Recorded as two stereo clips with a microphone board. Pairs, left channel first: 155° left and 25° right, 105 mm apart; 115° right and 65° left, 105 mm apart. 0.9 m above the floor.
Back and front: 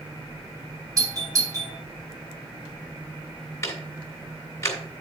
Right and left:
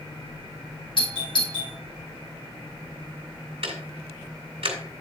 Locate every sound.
1.0 s a doorbell: 75° right, 2.5 m
3.6 s ticking: 95° left, 2 m